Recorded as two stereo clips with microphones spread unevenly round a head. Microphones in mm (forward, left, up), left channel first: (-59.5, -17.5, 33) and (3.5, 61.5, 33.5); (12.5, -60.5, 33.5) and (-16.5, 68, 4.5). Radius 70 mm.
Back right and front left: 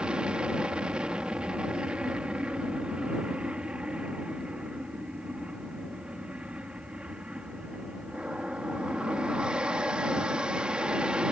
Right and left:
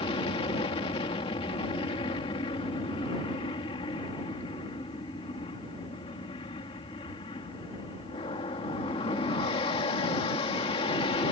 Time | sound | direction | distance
0.0 | an aircraft | 30° right | ?